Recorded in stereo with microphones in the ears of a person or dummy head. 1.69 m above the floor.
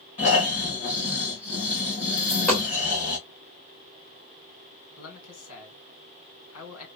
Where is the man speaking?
80° left, 1.8 m.